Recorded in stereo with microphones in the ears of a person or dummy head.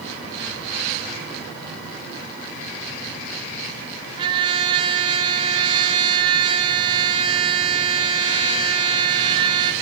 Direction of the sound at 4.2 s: 20° right (ahead or behind).